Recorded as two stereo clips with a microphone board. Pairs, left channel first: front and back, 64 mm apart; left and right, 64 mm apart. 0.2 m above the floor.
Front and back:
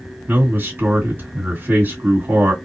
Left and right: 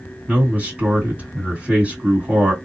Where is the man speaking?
140° right, 2 m.